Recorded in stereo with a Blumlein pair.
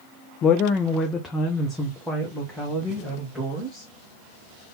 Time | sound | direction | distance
0.4 | a woman speaking | 30° left | 0.5 m